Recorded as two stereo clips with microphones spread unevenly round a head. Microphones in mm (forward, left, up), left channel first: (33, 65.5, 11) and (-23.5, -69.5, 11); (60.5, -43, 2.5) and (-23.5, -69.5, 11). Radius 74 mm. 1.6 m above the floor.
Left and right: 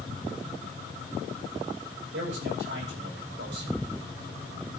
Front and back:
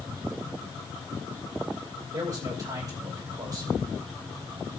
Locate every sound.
2.1 s a man speaking: 120° right, 8.5 m